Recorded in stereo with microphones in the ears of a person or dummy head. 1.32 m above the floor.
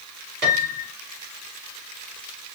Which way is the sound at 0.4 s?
55° right (ahead or behind).